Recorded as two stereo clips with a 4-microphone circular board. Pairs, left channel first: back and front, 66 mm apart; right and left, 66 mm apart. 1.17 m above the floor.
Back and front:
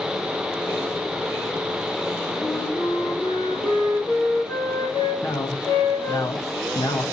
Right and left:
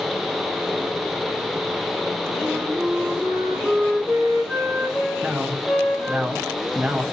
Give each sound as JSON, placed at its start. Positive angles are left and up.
{"t": 2.4, "sound": "a flute", "azimuth_deg": 175, "distance_m": 2.0}
{"t": 5.2, "sound": "a man speaking", "azimuth_deg": 165, "distance_m": 1.1}